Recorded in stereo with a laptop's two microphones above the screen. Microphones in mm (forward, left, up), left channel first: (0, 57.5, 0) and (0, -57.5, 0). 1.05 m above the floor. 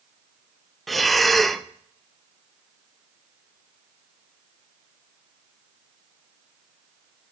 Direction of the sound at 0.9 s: Centre (ahead or behind).